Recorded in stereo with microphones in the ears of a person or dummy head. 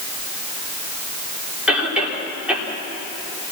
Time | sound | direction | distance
1.7 | a cough | 5° right (ahead or behind) | 5 m